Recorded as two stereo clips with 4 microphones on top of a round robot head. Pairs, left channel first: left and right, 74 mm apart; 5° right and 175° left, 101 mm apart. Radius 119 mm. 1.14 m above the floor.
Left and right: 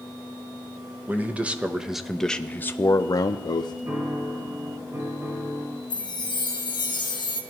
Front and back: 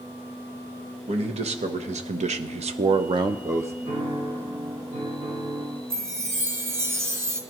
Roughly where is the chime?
Left.